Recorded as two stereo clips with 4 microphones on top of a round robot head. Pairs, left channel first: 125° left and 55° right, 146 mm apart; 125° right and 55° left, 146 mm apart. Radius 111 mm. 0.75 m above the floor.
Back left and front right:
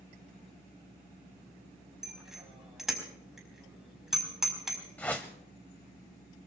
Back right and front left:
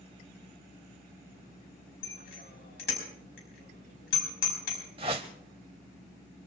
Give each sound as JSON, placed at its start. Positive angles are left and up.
{"t": 2.0, "sound": "a bicycle bell", "azimuth_deg": -140, "distance_m": 4.5}
{"t": 5.0, "sound": "a whoosh", "azimuth_deg": 55, "distance_m": 0.5}